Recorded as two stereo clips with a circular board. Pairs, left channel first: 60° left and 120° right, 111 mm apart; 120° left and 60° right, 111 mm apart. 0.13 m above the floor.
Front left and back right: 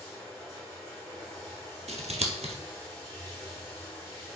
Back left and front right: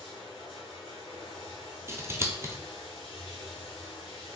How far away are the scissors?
About 0.6 m.